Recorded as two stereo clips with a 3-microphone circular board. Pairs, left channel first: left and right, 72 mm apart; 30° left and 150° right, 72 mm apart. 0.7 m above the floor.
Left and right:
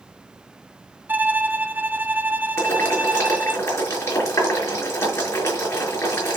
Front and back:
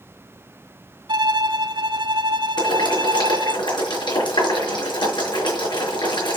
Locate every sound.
1.1 s a violin: 155° right, 0.7 m
2.6 s boiling: 40° left, 6 m